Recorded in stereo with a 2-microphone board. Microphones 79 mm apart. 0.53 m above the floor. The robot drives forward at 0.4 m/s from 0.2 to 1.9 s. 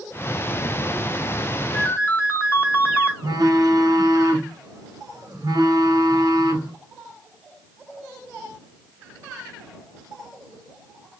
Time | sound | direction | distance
1.7 | a ringtone | 35° left (ahead or behind) | 0.8 m
3.2 | a phone buzzing | 60° right (ahead or behind) | 1.2 m